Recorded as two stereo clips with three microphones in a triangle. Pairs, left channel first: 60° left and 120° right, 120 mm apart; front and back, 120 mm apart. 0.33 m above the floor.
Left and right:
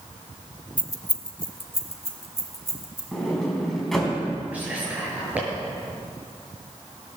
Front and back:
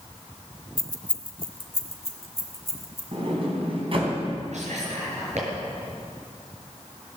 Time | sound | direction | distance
0.8 | keys jangling | 5° left | 0.9 m
3.1 | a sliding door | 145° left | 3.5 m
4.5 | whispering | 165° left | 6 m